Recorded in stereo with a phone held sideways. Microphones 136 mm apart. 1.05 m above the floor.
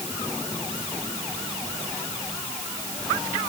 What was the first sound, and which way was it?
Only background noise.